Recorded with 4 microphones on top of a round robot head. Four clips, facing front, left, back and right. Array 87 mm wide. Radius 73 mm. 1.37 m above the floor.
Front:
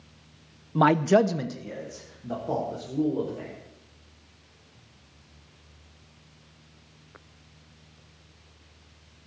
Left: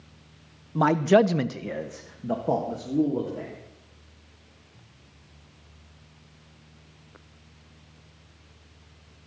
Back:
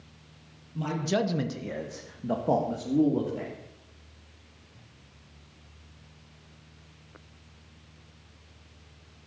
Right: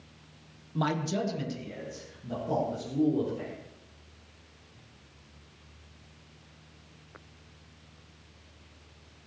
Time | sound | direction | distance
0.8 | a man speaking | 25° left | 0.9 m